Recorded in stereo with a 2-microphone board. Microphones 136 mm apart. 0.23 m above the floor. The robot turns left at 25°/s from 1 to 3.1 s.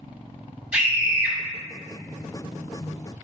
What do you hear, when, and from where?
0.7 s a scream: 10° right (ahead or behind), 1.5 m; by 1.4 s 15° right (ahead or behind), 1.5 m